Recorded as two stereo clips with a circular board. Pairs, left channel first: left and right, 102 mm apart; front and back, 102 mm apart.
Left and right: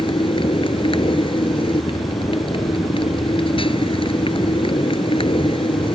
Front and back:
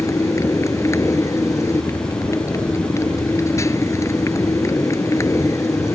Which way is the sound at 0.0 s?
60° left.